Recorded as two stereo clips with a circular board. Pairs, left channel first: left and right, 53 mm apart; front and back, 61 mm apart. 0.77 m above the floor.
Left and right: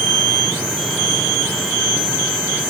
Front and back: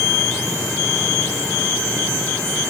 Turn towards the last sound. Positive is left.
No sound to turn to.